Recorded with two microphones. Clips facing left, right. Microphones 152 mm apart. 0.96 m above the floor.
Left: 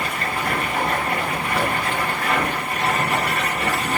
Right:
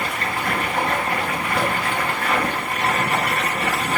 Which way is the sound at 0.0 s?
35° left (ahead or behind).